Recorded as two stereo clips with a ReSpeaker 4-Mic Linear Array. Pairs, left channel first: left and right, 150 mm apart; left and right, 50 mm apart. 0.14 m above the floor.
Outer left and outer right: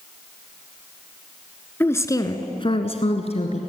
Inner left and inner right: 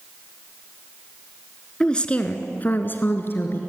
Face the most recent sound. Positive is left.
turn(degrees=45)  # may be behind; listen again after turning